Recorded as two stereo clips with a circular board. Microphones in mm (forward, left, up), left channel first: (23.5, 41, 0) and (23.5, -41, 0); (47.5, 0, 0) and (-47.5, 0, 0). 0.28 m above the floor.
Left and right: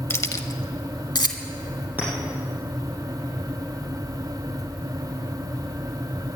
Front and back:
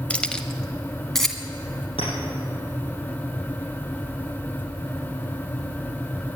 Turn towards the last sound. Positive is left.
turn(degrees=-20)